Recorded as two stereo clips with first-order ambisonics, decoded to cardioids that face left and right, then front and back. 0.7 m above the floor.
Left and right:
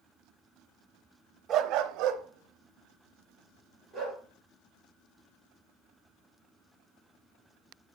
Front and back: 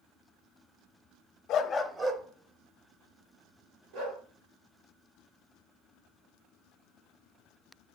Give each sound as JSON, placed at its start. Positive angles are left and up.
{"t": 1.5, "sound": "a dog barking", "azimuth_deg": -40, "distance_m": 0.8}